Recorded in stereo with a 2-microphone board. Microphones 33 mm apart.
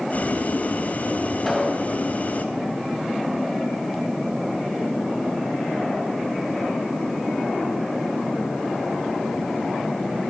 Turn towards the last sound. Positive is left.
turn(degrees=5)  # may be behind; listen again after turning